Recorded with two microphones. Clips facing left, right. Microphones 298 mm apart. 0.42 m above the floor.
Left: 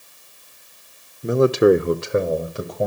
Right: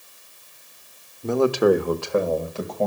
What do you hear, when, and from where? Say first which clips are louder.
1.2 s a man speaking: left 3 dB; 15° left (ahead or behind), 1.0 m